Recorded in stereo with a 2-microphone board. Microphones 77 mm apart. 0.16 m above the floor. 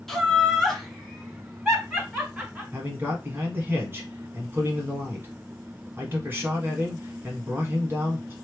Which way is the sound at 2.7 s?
30° right (ahead or behind).